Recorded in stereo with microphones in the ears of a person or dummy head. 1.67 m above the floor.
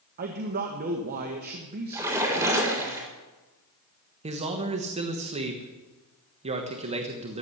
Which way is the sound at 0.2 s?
50° right (ahead or behind).